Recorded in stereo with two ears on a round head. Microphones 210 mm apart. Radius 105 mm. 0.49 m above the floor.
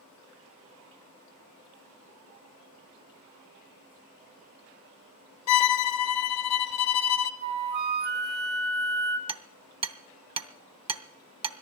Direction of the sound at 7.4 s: 45° right (ahead or behind).